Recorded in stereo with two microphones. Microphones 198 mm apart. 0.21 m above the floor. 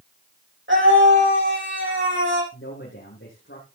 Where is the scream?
75° right (ahead or behind), 7.5 m.